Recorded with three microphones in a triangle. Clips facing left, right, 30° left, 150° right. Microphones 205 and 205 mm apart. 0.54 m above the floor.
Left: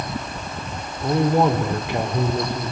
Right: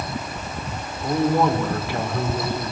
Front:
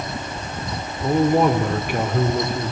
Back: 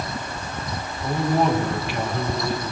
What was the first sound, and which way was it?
A man speaking, 25° left.